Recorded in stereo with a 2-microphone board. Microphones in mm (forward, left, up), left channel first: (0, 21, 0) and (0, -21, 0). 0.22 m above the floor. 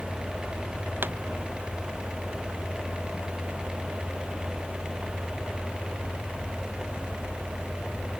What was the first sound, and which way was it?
A pop, 55° right (ahead or behind).